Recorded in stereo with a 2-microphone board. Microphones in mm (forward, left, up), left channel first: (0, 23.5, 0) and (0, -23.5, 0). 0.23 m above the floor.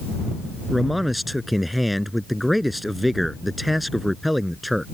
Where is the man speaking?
Centre (ahead or behind).